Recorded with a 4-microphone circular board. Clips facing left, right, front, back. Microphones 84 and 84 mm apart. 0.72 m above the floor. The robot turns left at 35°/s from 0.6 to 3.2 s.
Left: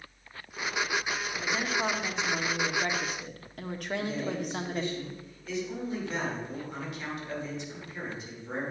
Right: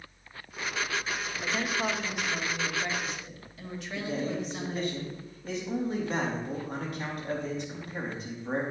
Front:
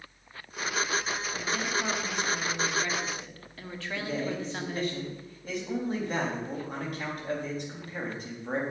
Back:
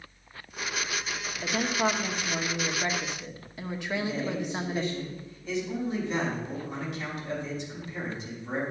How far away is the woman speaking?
About 1.3 m.